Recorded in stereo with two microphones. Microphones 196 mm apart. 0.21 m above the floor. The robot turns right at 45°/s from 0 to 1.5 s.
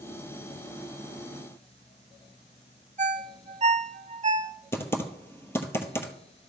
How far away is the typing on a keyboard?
About 1.3 m.